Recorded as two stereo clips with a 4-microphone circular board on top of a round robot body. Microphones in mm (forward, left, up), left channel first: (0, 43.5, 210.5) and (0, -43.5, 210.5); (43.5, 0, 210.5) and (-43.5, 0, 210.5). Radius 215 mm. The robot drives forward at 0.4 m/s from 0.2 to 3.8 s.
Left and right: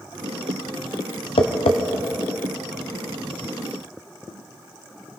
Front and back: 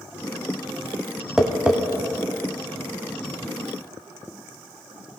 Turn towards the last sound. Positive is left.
turn(degrees=135)